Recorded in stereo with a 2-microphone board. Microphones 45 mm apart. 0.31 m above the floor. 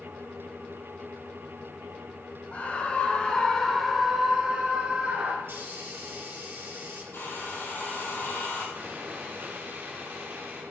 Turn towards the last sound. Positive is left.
turn(degrees=-60)  # may be behind; listen again after turning